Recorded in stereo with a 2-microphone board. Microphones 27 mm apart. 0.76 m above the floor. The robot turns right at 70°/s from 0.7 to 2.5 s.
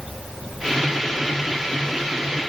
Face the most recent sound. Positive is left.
No sound to turn to.